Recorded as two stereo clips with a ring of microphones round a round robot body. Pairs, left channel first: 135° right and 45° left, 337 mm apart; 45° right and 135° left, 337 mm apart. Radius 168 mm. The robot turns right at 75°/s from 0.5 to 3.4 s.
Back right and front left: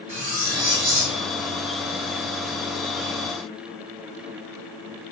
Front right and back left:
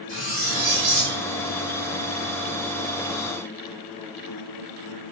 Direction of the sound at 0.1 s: 20° left.